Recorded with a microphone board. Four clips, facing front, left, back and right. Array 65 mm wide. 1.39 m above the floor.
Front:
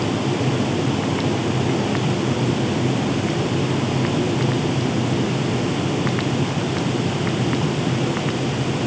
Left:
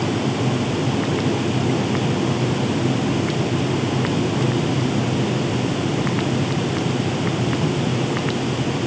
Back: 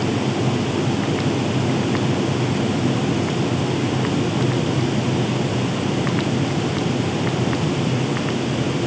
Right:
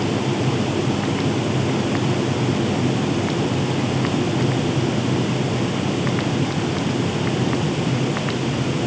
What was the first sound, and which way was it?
Only background noise.